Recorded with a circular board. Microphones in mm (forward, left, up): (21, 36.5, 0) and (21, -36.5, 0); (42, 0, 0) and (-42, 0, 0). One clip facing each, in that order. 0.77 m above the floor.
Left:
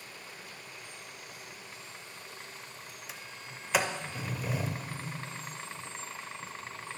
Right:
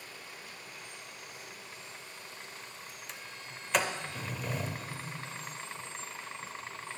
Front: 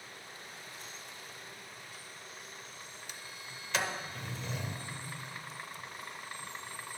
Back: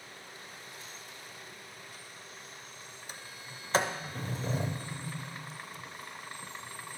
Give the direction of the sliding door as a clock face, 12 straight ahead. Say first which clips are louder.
Left 1 dB, back 3 dB; 6 o'clock.